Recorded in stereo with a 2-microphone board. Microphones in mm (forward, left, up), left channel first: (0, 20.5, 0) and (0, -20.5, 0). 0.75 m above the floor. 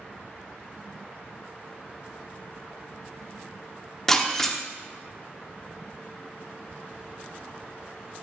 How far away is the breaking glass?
About 0.7 m.